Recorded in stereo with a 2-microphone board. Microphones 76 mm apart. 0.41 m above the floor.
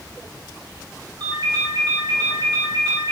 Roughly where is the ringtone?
Right.